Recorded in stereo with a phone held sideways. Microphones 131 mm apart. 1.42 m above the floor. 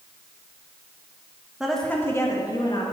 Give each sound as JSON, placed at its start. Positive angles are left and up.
{"t": 1.6, "sound": "a woman speaking", "side_deg": -5, "distance_m": 1.4}